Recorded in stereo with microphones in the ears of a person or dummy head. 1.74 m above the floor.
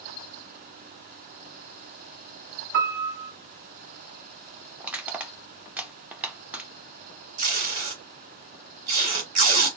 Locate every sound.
2.7 s a piano: 60° right (ahead or behind), 1.1 m
4.8 s crushing: 10° right (ahead or behind), 0.8 m
7.4 s tape being pulled: 45° right (ahead or behind), 1.9 m